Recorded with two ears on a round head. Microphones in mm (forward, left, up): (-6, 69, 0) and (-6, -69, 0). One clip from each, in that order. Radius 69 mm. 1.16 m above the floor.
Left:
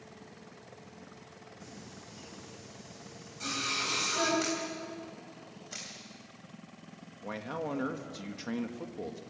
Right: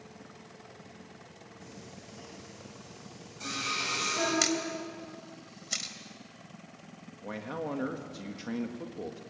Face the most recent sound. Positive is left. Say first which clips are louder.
# even
turn(degrees=10)  # may be behind; listen again after turning